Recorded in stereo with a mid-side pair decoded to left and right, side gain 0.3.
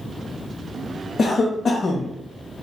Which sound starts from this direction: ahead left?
A cough, at 1.2 s.